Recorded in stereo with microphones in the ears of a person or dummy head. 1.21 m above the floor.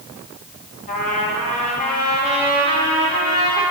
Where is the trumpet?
40° left (ahead or behind), 1.9 m.